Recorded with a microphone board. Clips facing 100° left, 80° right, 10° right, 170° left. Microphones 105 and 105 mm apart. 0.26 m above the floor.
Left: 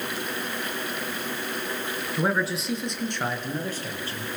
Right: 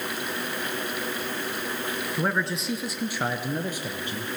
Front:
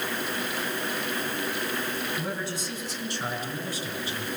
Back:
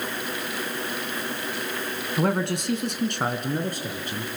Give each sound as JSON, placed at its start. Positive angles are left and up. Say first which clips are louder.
{"t": 2.2, "sound": "a man speaking", "louder": "left 3 dB, back 8 dB", "azimuth_deg": 180, "distance_m": 2.5}